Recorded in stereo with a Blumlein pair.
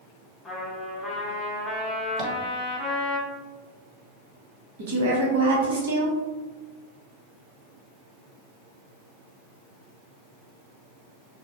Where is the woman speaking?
60° right, 0.9 m.